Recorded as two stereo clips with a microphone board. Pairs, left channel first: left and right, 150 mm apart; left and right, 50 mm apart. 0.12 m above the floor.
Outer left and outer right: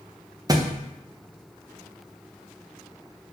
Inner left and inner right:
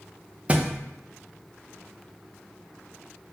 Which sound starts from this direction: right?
A thud, at 0.5 s.